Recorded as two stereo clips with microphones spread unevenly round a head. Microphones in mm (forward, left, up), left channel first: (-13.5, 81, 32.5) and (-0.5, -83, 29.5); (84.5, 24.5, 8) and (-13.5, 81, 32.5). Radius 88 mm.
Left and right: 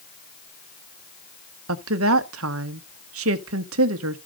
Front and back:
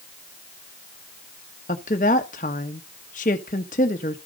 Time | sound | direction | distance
1.7 | a woman speaking | 80° right | 1.2 m